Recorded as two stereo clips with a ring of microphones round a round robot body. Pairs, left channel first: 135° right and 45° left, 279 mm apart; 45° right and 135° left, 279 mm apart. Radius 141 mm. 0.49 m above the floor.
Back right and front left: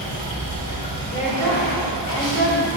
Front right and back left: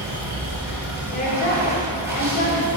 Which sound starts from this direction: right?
A woman speaking, at 1.1 s.